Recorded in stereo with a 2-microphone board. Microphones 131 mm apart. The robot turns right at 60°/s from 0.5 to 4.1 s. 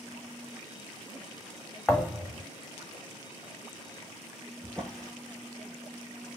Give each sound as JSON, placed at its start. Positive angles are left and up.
{"t": 1.9, "sound": "a thud", "azimuth_deg": 170, "distance_m": 0.8}
{"t": 4.6, "sound": "a drawer", "side_deg": 10, "distance_m": 1.2}